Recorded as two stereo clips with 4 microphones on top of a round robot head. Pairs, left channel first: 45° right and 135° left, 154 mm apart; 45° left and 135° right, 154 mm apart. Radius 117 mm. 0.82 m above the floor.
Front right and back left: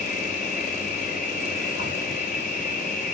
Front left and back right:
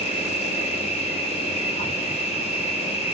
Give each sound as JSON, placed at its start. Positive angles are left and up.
{"t": 0.0, "sound": "an insect", "azimuth_deg": -5, "distance_m": 4.0}